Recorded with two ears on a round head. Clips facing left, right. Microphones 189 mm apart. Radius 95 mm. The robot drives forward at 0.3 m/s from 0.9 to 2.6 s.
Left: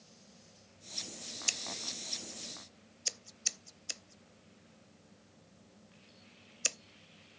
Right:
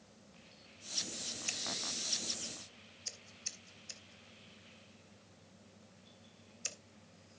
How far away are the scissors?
About 0.6 m.